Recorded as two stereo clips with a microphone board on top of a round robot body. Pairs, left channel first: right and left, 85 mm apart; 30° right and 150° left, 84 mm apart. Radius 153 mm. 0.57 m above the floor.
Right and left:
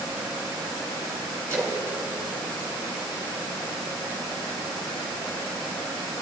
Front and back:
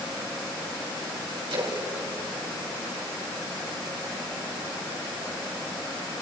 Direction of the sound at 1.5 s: 150° left.